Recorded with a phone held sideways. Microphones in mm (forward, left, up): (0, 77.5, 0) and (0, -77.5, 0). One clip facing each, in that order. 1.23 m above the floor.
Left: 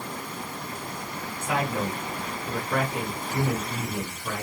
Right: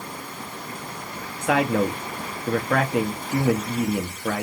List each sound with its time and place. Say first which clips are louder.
1.4 s a man speaking: right 7 dB; 85° right, 1.6 m